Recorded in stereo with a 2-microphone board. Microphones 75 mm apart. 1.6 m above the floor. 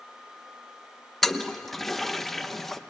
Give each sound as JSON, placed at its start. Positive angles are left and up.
{"t": 1.2, "sound": "a toilet flushing", "side_deg": 0, "distance_m": 1.0}